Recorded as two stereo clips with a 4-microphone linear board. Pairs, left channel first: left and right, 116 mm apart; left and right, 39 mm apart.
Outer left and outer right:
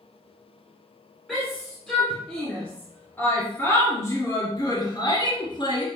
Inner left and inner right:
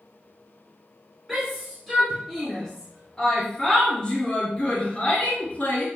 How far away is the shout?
About 4 m.